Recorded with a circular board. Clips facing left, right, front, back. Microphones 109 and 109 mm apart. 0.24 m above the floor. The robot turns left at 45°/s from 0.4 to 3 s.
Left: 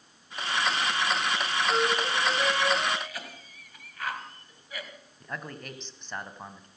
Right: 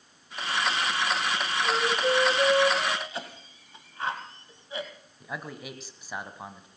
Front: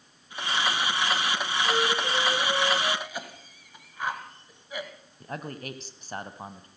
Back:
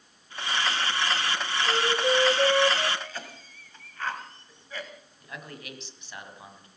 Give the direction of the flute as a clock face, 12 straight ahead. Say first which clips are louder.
Right 2 dB, back 2 dB; 4 o'clock.